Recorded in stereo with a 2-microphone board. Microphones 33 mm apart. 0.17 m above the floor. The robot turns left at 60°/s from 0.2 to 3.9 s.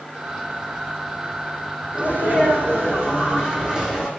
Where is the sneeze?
55° right, 7.5 m; by 4.1 s 175° right, 7.5 m.